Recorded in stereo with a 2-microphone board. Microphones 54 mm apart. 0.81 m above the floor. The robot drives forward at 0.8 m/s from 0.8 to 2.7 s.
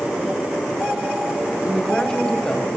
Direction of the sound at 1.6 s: 20° left (ahead or behind).